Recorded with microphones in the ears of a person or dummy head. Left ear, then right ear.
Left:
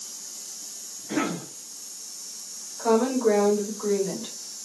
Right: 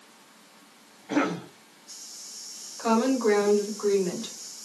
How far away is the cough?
About 0.9 m.